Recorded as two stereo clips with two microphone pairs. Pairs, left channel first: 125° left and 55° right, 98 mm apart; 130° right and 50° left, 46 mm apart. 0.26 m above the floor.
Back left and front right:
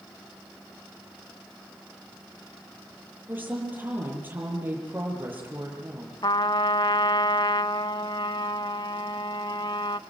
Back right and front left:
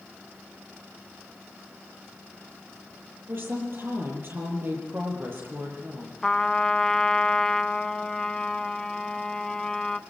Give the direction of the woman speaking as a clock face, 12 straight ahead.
12 o'clock.